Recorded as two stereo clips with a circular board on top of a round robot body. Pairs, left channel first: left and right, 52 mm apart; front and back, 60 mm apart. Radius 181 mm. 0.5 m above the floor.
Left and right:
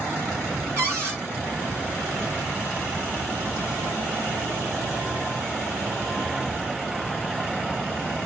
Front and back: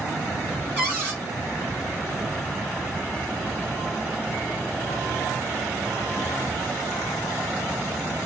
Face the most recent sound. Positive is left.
turn(degrees=-125)